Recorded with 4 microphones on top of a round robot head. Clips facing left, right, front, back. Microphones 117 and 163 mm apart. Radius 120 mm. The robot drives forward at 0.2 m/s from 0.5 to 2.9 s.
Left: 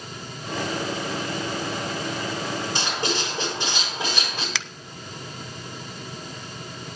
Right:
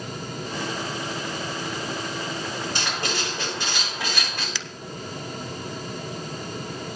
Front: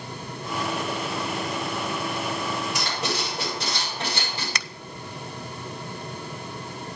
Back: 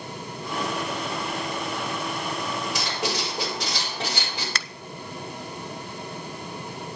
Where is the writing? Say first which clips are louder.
Left 2 dB, even; 175° left, 7 m.